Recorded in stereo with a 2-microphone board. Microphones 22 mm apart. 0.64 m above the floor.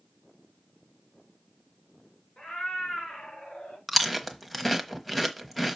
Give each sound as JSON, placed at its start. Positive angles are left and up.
{"t": 2.4, "sound": "a cat meowing", "side_deg": 45, "distance_m": 3.0}
{"t": 3.9, "sound": "chewing", "side_deg": 0, "distance_m": 1.1}